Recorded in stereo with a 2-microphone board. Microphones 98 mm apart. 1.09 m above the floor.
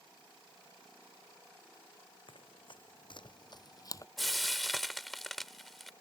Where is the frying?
Centre (ahead or behind).